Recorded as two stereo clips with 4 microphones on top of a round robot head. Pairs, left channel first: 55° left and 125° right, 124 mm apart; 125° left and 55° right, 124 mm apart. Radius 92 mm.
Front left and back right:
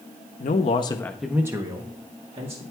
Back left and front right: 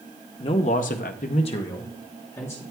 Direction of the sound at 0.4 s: 75° left.